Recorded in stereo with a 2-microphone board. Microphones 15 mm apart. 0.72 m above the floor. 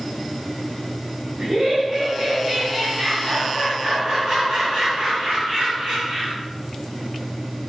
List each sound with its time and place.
1.4 s laughter: 55° right (ahead or behind), 6.5 m